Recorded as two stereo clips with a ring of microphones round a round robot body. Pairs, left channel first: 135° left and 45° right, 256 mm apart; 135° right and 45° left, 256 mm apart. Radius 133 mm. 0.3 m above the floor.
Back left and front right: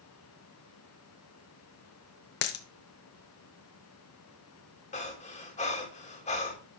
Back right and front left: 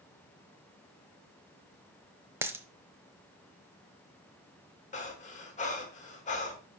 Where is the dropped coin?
125° left, 0.8 m.